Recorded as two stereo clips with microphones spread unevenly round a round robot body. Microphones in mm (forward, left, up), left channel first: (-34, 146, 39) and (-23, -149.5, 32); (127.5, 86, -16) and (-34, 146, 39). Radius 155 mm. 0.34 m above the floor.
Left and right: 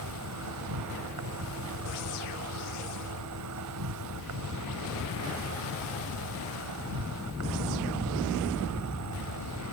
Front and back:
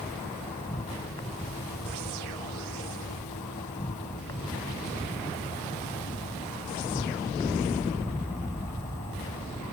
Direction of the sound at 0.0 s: 85° right.